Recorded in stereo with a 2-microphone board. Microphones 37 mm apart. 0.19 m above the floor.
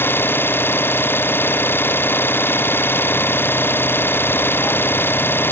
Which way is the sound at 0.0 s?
80° left.